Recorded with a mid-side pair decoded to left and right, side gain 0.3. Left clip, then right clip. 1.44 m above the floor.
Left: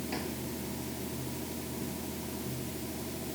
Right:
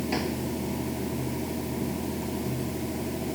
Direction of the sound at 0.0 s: 65° right.